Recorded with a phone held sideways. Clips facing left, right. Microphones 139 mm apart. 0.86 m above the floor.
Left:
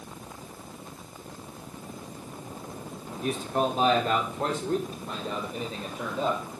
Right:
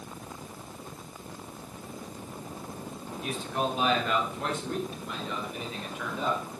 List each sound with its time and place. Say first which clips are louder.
3.2 s a man speaking: left 4 dB; 40° left (ahead or behind), 2.5 m; by 6.4 s 35° left (ahead or behind), 4.5 m